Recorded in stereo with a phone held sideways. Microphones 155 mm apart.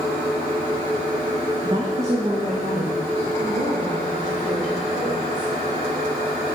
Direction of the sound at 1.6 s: 20° right (ahead or behind).